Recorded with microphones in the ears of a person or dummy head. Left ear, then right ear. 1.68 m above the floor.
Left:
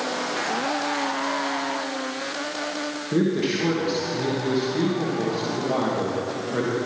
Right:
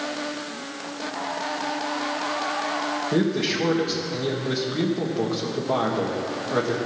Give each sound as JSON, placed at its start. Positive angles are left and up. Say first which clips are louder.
{"t": 3.1, "sound": "a man speaking", "louder": "left 3 dB", "side_deg": -10, "distance_m": 1.4}